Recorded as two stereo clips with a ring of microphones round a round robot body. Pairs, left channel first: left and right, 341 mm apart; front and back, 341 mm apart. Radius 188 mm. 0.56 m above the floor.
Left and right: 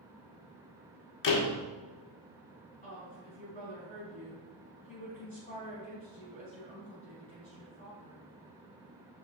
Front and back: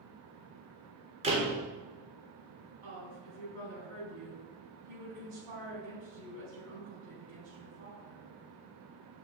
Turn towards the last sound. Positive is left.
turn(degrees=155)